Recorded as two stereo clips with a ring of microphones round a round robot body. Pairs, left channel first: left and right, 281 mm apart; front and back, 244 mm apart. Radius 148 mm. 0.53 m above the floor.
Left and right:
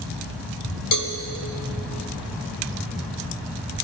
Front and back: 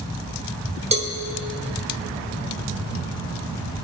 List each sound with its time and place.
0.9 s a cowbell: 115° left, 1.6 m